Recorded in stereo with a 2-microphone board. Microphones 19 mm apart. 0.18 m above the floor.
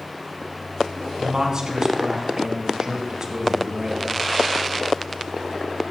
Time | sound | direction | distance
1.2 | a man speaking | 35° right (ahead or behind) | 1.3 m